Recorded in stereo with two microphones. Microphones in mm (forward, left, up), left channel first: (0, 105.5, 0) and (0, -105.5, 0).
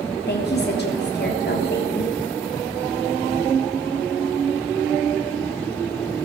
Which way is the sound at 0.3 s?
50° left (ahead or behind).